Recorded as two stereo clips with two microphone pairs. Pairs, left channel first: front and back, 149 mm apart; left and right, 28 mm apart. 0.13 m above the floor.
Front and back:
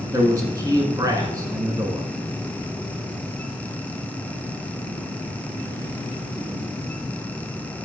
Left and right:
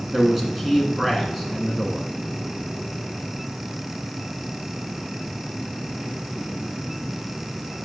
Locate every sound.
0.1 s a man speaking: 170° right, 1.4 m